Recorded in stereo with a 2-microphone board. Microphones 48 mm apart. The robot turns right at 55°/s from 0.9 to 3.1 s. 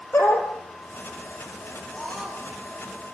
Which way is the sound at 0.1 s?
55° left (ahead or behind).